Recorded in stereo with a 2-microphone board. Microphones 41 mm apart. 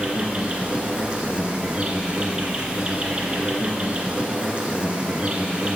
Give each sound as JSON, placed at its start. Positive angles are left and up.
{"t": 0.0, "sound": "an insect", "side_deg": -25, "distance_m": 1.6}